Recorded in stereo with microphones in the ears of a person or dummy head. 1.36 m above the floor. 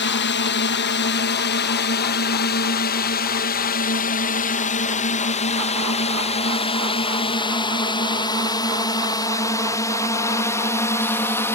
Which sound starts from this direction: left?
A drone, at 0.0 s.